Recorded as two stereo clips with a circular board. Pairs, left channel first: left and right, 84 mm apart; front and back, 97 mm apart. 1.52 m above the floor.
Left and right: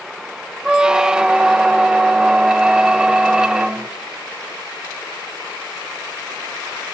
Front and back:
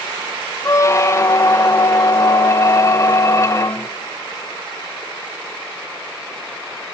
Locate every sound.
0.7 s a squeak: 15° right, 0.5 m